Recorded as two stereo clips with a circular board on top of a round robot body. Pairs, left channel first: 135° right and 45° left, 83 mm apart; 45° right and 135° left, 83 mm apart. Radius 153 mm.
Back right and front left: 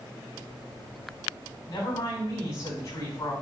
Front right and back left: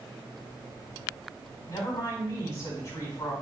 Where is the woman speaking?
100° right, 3.5 m.